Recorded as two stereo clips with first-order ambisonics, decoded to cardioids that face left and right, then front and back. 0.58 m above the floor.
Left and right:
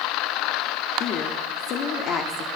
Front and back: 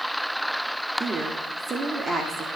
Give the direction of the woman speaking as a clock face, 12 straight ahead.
8 o'clock.